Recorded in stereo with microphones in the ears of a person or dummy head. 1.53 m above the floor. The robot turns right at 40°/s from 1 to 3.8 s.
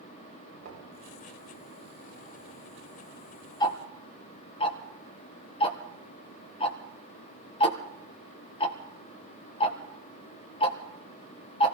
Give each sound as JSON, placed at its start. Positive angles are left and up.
{"t": 0.6, "sound": "knocking", "side_deg": -85, "distance_m": 6.0}
{"t": 3.6, "sound": "ticking", "side_deg": 20, "distance_m": 1.3}